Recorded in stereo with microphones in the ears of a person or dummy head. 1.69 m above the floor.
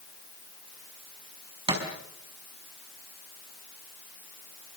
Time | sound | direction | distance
1.7 | a thud | 30° right (ahead or behind) | 4.5 m